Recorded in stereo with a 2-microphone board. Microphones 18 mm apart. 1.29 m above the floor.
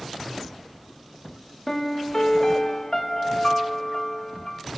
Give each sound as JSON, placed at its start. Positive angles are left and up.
{"t": 1.7, "sound": "a piano", "side_deg": 30, "distance_m": 1.3}